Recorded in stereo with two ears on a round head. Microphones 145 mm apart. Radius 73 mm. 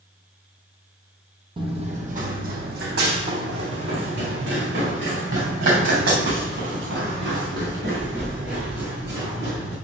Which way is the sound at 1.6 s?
30° right (ahead or behind).